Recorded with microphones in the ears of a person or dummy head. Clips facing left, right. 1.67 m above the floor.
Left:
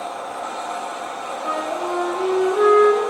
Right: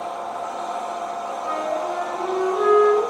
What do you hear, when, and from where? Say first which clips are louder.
0.0 s a machine running: even; 25° left (ahead or behind), 1.3 m
1.4 s a flute: left 1 dB; 40° left (ahead or behind), 3.5 m